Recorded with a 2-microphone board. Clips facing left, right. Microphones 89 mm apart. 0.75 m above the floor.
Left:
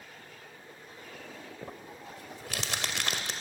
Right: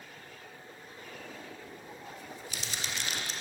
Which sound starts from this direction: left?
Crumpling, at 1.6 s.